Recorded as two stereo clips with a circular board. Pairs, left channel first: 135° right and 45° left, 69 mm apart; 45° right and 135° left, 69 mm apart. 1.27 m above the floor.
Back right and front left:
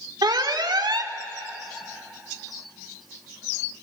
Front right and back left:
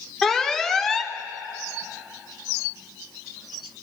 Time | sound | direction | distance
0.2 | an alarm | 40° left | 1.2 m